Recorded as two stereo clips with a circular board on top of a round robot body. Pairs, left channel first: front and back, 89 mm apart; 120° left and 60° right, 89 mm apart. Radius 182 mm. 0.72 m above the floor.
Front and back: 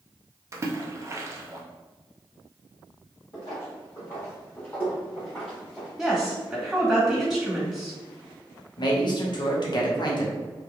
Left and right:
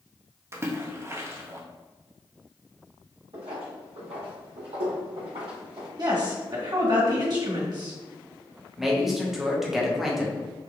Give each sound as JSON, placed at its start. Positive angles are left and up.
{"t": 0.5, "sound": "a splash", "azimuth_deg": -125, "distance_m": 0.5}
{"t": 3.3, "sound": "footsteps", "azimuth_deg": -40, "distance_m": 1.4}
{"t": 6.0, "sound": "a woman speaking", "azimuth_deg": -95, "distance_m": 1.7}
{"t": 8.8, "sound": "a man speaking", "azimuth_deg": 25, "distance_m": 1.0}